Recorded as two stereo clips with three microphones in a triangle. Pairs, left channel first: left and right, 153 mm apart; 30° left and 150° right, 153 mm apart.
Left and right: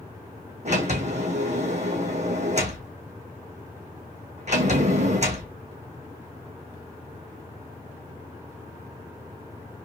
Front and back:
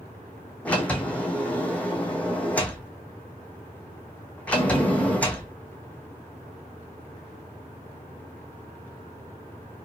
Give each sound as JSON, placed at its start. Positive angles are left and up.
{"t": 0.7, "sound": "a sliding door", "azimuth_deg": -50, "distance_m": 0.9}